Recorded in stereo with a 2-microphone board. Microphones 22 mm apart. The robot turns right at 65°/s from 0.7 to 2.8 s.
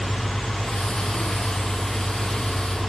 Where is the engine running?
80° left, 7 m; by 2.9 s 145° right, 7 m.